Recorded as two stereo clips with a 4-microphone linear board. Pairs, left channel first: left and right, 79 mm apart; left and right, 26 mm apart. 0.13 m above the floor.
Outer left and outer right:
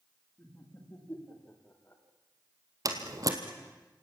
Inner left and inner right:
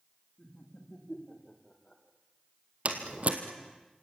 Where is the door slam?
50° right (ahead or behind), 2.5 m.